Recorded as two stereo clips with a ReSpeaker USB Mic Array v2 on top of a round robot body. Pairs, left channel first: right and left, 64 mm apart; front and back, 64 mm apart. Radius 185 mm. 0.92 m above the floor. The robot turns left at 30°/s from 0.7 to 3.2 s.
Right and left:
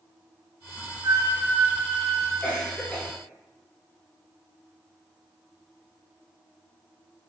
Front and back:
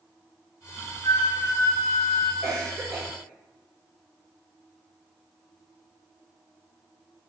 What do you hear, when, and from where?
1.0 s a flute: 45° left, 0.6 m; by 2.3 s 5° left, 0.6 m
2.4 s a cough: 155° right, 1.0 m; by 3.1 s 175° right, 1.0 m